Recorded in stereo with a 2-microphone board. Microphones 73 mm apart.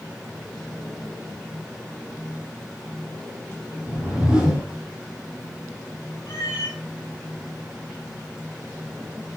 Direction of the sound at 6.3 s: 50° left (ahead or behind).